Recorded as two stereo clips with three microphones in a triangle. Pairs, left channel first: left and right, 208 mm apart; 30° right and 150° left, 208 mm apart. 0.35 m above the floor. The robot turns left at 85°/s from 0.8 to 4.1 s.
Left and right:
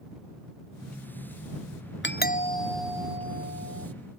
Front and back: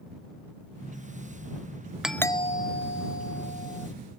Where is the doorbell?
65° left; by 3.9 s 90° right.